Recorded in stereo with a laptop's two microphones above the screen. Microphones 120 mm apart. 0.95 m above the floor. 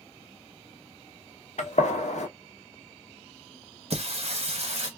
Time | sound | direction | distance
1.6 | a gunshot | 70° left (ahead or behind) | 0.8 m
3.9 | singing | 60° right (ahead or behind) | 0.8 m